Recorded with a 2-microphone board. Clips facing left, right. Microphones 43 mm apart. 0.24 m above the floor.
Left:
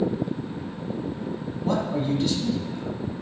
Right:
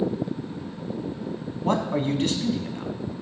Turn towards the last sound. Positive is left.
turn(degrees=-50)  # may be behind; listen again after turning